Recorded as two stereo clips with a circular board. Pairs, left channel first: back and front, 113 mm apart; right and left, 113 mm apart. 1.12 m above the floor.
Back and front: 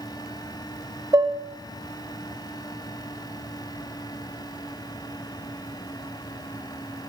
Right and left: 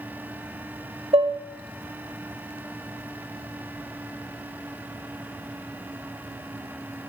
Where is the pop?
No pop in this recording.